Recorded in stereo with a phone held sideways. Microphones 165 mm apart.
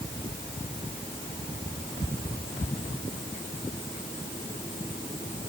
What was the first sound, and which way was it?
Only background noise.